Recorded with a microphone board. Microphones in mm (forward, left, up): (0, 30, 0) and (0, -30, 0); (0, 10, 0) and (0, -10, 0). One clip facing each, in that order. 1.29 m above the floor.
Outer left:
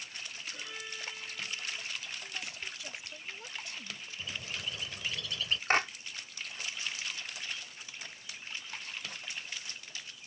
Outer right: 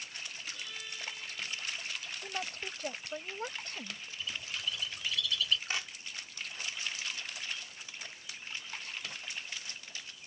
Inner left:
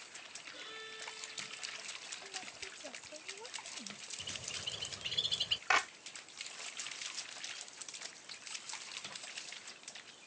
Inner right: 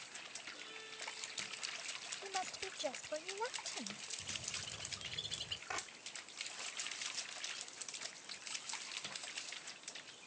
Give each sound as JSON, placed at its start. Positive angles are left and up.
{"t": 0.5, "sound": "a violin", "side_deg": 25}
{"t": 2.2, "sound": "a woman speaking", "side_deg": -55}
{"t": 4.2, "sound": "a bird", "side_deg": 40}
{"t": 5.7, "sound": "a clap", "side_deg": 60}